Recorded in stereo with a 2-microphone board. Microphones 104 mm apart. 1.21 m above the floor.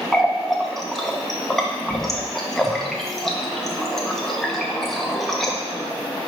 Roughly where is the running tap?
Centre.